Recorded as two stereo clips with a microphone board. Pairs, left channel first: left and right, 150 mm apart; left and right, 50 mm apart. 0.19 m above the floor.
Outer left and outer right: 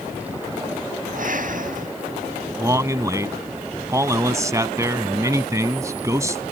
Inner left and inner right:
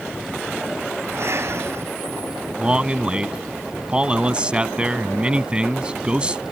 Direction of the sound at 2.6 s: 20° right (ahead or behind).